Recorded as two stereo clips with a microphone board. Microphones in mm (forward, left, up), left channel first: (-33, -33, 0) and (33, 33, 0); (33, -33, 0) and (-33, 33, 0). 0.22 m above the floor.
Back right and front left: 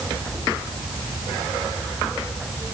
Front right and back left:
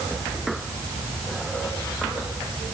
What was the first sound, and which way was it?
Only background noise.